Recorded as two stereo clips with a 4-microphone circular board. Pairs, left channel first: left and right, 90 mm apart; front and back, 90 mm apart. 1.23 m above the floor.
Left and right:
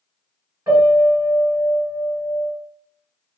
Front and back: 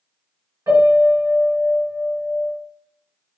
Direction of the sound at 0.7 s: 140° right.